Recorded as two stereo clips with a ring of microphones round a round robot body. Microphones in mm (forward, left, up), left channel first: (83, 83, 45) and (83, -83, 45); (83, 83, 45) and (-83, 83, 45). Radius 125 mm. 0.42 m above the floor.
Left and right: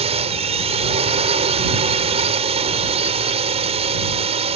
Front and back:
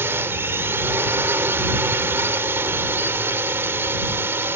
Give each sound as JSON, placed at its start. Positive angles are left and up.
{"t": 0.0, "sound": "a drone", "azimuth_deg": -110}